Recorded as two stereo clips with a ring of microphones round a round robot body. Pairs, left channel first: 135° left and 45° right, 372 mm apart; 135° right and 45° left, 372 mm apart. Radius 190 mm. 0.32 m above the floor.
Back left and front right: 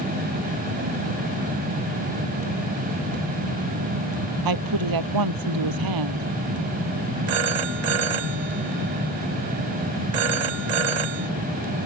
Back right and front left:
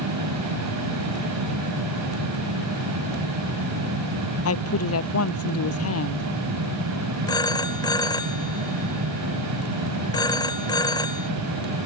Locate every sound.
4.5 s a woman speaking: 80° right
7.3 s a phone ringing: 55° right